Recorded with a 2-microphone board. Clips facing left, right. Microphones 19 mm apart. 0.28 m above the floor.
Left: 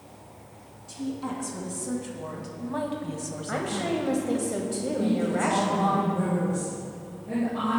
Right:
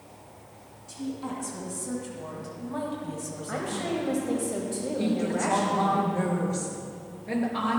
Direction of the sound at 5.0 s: 55° right (ahead or behind).